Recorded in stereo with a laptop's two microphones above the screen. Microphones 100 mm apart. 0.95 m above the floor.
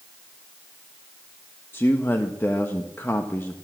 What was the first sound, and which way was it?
A man speaking, 20° left (ahead or behind).